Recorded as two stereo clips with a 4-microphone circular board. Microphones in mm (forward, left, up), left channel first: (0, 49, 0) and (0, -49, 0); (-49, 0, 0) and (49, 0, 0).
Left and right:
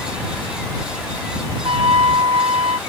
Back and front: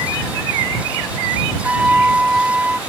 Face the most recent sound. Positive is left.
turn(degrees=-75)